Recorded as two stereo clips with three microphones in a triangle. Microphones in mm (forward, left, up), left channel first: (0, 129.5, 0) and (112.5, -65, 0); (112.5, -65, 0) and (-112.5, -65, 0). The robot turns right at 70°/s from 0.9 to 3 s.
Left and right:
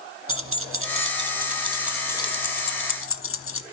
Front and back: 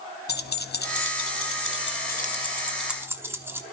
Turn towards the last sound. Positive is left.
turn(degrees=100)